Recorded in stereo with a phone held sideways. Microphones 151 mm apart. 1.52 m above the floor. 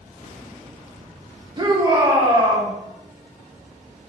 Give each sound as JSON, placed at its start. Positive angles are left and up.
{"t": 1.6, "sound": "a shout", "side_deg": -30, "distance_m": 1.7}